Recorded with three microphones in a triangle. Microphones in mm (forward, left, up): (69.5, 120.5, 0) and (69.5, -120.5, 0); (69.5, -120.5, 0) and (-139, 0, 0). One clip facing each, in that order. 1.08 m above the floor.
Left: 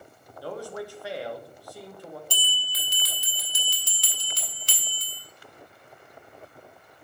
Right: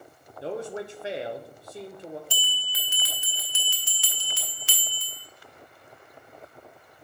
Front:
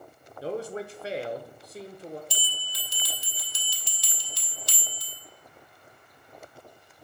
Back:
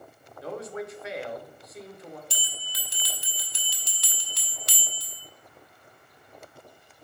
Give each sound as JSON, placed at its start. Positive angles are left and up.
{"t": 0.4, "sound": "a man speaking", "azimuth_deg": -45, "distance_m": 0.7}
{"t": 2.3, "sound": "a bell", "azimuth_deg": 135, "distance_m": 1.0}